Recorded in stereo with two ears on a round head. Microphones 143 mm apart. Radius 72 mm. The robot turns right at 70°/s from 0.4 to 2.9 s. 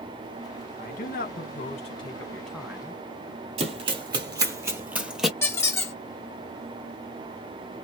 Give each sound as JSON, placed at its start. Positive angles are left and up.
{"t": 0.8, "sound": "a man speaking", "azimuth_deg": 60, "distance_m": 1.2}
{"t": 3.6, "sound": "running footsteps", "side_deg": -40, "distance_m": 1.4}
{"t": 5.4, "sound": "a squeak", "side_deg": 15, "distance_m": 0.9}